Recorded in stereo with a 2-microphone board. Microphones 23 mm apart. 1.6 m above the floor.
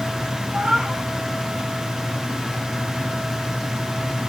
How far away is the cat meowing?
About 2.0 m.